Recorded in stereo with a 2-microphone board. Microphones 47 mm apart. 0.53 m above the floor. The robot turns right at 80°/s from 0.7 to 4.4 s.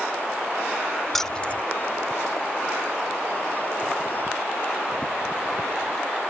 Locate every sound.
1.1 s keys jangling: 5° left (ahead or behind); by 1.6 s 35° left (ahead or behind)